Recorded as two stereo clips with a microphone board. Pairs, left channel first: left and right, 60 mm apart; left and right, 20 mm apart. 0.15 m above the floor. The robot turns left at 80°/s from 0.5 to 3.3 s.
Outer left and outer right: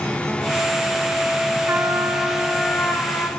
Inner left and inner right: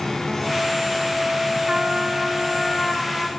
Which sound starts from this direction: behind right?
A trumpet, at 1.7 s.